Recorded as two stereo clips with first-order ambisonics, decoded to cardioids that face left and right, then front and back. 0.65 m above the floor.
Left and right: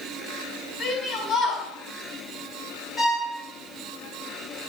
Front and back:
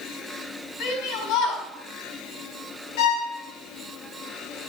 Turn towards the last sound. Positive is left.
turn(degrees=15)